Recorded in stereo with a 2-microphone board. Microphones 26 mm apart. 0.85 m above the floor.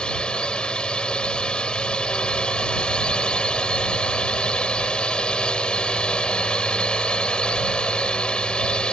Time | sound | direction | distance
0.0 | a drone | 35° left (ahead or behind) | ?